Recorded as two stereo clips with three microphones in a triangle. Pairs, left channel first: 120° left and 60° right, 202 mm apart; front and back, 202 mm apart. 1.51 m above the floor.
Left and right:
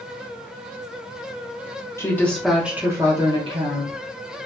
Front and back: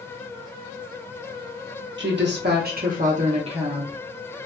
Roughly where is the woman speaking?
Behind.